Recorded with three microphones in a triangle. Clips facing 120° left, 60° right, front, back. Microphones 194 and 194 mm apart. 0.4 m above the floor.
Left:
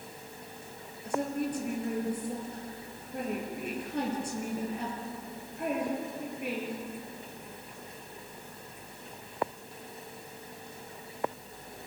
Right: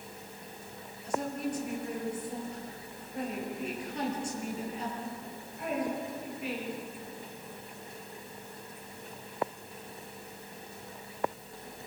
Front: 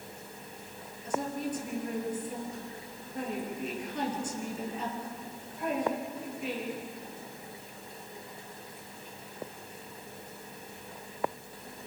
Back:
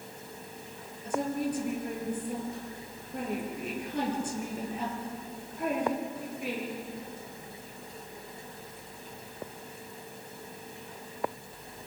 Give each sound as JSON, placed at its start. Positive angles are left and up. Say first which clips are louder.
{"t": 1.0, "sound": "a woman speaking", "louder": "left 2 dB, back 3 dB", "azimuth_deg": 150, "distance_m": 8.5}